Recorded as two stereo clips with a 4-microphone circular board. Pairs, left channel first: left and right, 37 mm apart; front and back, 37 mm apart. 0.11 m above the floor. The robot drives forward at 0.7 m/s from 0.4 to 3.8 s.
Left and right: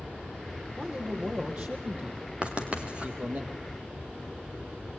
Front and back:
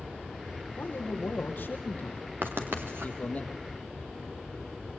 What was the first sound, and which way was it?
A man speaking, 30° right.